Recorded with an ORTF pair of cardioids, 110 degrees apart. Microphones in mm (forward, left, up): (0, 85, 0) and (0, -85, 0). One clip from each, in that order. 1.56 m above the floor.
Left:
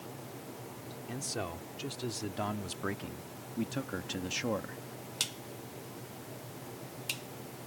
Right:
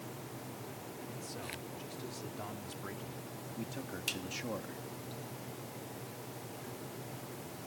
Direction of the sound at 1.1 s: 65° left.